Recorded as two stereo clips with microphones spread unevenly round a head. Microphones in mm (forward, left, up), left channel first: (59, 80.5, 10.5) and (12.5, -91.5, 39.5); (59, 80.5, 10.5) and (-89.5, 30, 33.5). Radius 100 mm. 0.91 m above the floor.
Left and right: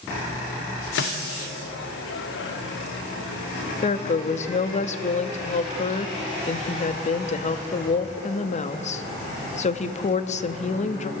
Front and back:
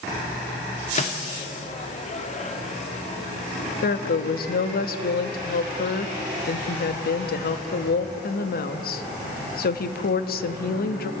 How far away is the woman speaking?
About 1.2 m.